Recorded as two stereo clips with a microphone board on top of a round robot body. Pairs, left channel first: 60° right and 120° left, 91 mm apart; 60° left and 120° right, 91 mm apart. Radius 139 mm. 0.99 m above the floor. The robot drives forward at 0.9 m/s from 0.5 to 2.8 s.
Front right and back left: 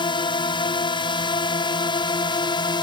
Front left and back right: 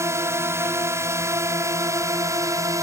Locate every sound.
0.0 s a drone: 65° right; by 2.8 s 70° right